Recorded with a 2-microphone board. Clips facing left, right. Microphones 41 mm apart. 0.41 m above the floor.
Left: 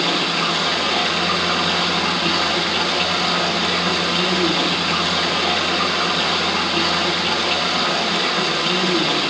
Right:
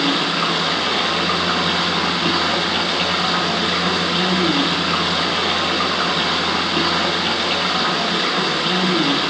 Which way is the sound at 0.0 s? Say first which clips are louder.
Right 1 dB; 15° right (ahead or behind).